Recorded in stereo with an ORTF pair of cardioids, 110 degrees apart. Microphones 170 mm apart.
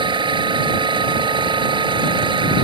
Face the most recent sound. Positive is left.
turn(degrees=-30)